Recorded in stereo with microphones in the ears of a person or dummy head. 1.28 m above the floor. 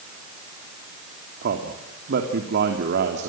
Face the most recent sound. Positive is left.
turn(degrees=-60)  # may be behind; listen again after turning